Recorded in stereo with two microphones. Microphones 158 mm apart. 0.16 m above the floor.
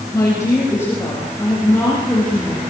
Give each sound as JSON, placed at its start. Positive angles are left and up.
{"t": 0.1, "sound": "a woman speaking", "side_deg": 20, "distance_m": 7.5}